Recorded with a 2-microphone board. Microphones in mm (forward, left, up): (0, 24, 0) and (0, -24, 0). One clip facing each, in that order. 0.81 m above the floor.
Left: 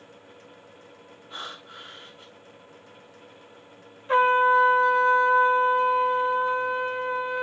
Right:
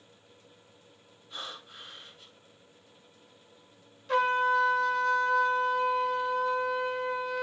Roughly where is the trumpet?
Left.